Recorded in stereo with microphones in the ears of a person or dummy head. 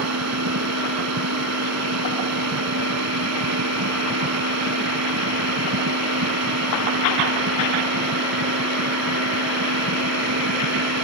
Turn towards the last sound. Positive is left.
turn(degrees=-80)